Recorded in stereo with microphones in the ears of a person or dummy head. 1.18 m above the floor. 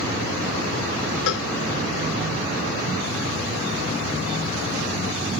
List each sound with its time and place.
1.3 s a cowbell: 70° left (ahead or behind)